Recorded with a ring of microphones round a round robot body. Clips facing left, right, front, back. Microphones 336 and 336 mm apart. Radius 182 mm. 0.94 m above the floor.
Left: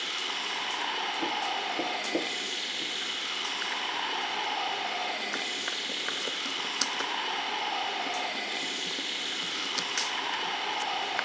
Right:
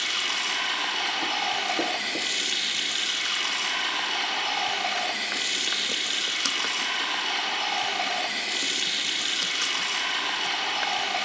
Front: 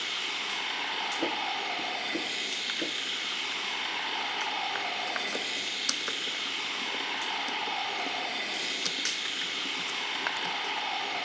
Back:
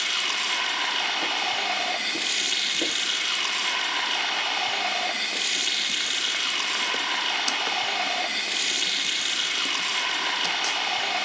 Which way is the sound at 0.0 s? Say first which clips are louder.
Right 2 dB, back 4 dB; 145° right.